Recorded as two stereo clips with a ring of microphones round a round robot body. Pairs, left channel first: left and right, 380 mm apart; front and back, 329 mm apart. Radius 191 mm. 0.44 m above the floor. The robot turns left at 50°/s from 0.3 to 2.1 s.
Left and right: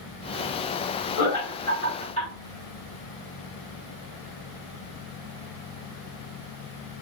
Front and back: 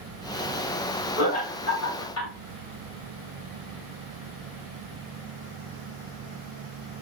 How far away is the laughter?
About 1.8 m.